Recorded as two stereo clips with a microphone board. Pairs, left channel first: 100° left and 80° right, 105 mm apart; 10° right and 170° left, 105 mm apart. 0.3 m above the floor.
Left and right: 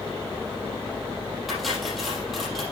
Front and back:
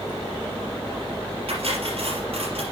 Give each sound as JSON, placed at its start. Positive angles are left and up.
{"t": 1.5, "sound": "cutlery clinking", "azimuth_deg": -170, "distance_m": 4.5}